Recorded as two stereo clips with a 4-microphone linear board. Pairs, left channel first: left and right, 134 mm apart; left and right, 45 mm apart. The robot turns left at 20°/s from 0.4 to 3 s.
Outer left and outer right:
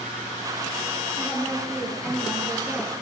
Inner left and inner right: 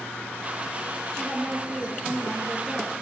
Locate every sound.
1.1 s a woman speaking: 25° left, 2.5 m; by 2.9 s 15° right, 2.5 m